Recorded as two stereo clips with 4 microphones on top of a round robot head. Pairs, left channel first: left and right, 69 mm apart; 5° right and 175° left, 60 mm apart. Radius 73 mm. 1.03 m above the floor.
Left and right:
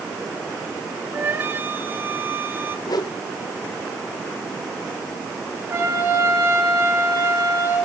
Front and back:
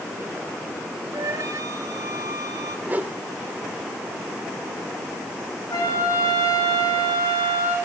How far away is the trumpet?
About 5.5 m.